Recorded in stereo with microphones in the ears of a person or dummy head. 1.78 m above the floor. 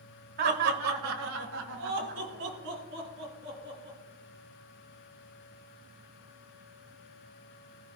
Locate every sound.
0.4 s laughter: 50° right (ahead or behind), 1.7 m